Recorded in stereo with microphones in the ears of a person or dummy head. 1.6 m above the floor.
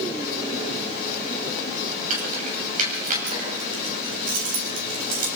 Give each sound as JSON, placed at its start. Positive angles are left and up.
{"t": 2.1, "sound": "keys jangling", "side_deg": -50, "distance_m": 7.0}